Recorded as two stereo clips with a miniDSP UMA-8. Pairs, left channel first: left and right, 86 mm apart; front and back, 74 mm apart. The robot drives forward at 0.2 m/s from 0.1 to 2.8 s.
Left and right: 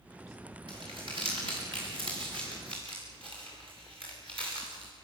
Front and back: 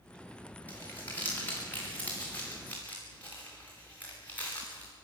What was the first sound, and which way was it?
Crumpling, 65° right.